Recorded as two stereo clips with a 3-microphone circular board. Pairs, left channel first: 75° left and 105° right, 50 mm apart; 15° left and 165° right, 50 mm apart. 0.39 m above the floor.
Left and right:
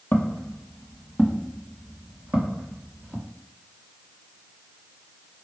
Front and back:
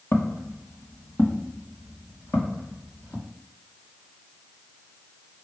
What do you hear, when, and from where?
0.1 s footsteps: 35° left, 0.8 m; by 3.3 s 45° right, 1.9 m